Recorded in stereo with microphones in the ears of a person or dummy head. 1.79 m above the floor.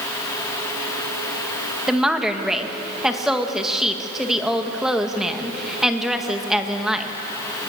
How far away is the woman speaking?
About 2.0 m.